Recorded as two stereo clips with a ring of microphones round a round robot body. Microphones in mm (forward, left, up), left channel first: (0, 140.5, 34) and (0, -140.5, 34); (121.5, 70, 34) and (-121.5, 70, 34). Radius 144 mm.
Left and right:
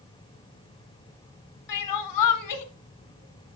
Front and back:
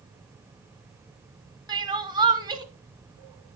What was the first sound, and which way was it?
Crying, 105° left.